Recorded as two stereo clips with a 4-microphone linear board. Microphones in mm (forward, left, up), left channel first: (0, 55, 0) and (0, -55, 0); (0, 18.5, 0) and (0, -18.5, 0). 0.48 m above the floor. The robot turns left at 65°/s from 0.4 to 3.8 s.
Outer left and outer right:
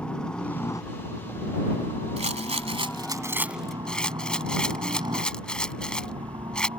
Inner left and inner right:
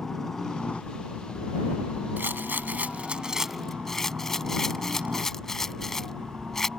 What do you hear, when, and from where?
0.0 s a helicopter: 5° left (ahead or behind); by 6.8 s 40° right (ahead or behind)
2.2 s a rattle: 80° right; by 6.7 s 10° left (ahead or behind)